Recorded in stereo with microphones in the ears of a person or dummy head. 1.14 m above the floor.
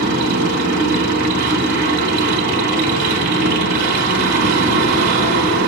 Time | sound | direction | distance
0.0 | a machine running | 65° right (ahead or behind) | 4.5 m